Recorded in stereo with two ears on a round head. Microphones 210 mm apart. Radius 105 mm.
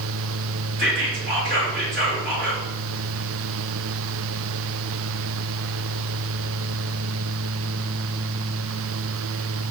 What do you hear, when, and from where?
0.8 s whispering: 55° right (ahead or behind), 1.7 m